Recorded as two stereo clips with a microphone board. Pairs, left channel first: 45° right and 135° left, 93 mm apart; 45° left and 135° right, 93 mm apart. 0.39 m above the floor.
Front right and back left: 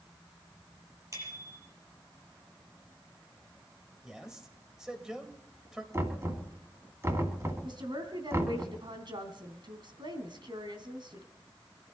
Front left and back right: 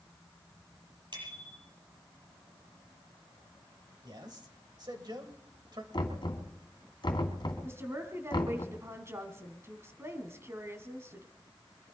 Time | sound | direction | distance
1.1 | a bicycle bell | 170° right | 7.5 m
4.0 | a man speaking | 140° right | 2 m
5.9 | knocking | 80° left | 2.5 m
7.6 | a woman speaking | 165° left | 2.5 m